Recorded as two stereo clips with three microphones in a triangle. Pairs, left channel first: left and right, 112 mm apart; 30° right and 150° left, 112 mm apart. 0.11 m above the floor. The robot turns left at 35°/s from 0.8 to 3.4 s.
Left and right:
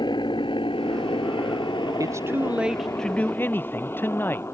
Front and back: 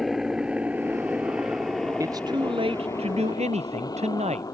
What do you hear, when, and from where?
0.0 s a helicopter: 60° left; by 4.5 s 25° left
2.0 s a man speaking: 150° right; by 4.5 s 160° left